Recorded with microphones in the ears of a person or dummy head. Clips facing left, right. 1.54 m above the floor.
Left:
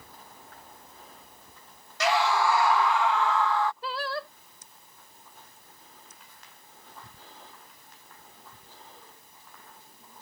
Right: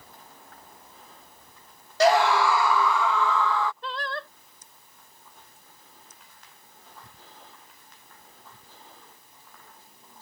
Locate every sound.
2.0 s a scream: 35° right (ahead or behind); by 3.7 s 60° right (ahead or behind)
3.8 s singing: 10° left (ahead or behind)